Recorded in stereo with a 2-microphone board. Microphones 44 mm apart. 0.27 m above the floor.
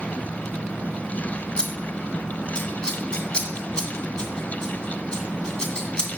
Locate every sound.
1.6 s scissors: 15° left (ahead or behind), 1.8 m